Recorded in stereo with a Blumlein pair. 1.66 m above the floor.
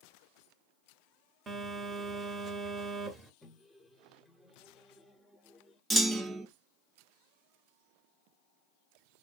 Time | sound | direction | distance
1.5 | a phone buzzing | 15° right | 0.7 m
3.4 | a microwave | 5° left | 0.7 m
5.9 | a clunk | 10° right | 0.5 m